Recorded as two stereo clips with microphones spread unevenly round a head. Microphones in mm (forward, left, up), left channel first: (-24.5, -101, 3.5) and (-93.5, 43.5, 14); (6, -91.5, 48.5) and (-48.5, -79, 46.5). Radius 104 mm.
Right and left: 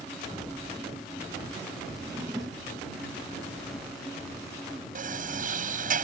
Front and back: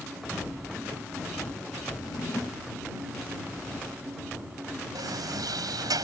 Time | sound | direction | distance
2.0 | a drawer | 40° left | ?
5.0 | a sliding door | 150° left | ?